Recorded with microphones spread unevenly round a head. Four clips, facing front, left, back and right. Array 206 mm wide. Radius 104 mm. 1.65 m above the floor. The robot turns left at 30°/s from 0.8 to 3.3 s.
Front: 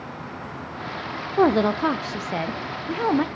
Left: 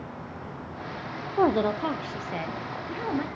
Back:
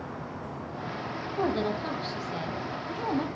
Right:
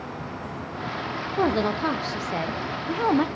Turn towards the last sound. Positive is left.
turn(degrees=-50)